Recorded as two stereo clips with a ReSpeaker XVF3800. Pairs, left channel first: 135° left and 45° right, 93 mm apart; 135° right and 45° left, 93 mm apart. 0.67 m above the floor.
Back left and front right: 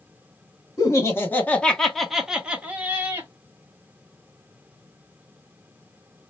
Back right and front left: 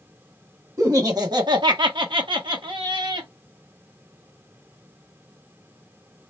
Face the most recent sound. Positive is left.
turn(degrees=20)